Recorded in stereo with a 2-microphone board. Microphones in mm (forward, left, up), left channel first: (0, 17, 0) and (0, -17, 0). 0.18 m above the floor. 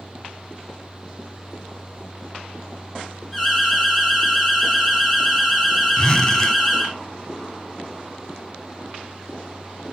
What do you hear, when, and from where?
1.9 s a crack: 15° right (ahead or behind), 3 m
3.3 s an alarm: 5° left (ahead or behind), 4 m
6.0 s a zipper: 25° left (ahead or behind), 1.4 m